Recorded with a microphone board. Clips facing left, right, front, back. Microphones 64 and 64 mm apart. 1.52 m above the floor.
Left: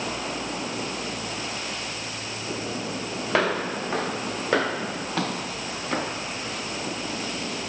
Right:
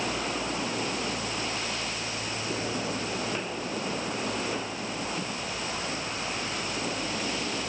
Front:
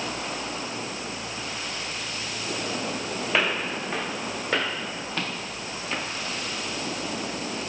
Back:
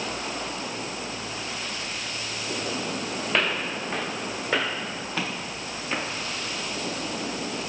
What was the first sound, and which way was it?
Footsteps, 85° left.